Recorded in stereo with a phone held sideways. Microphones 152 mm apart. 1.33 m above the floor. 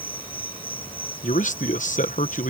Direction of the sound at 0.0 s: 35° left (ahead or behind).